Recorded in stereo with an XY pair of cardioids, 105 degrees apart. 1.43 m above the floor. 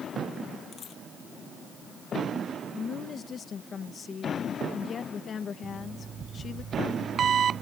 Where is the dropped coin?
55° left.